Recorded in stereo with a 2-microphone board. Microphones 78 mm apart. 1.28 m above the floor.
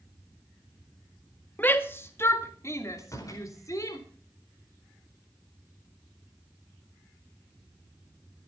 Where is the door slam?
45° left (ahead or behind), 4.5 m.